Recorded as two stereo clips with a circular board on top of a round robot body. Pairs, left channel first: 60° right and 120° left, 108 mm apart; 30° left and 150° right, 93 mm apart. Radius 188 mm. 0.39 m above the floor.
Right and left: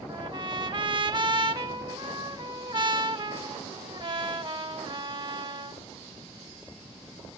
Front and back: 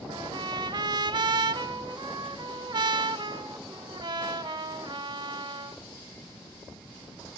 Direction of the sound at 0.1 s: 165° left.